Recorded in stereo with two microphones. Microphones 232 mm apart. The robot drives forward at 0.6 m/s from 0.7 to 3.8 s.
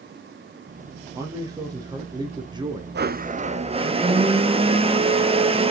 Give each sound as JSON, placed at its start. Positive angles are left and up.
{"t": 1.1, "sound": "a man speaking", "side_deg": -15, "distance_m": 2.5}
{"t": 3.0, "sound": "a blender", "side_deg": -50, "distance_m": 0.5}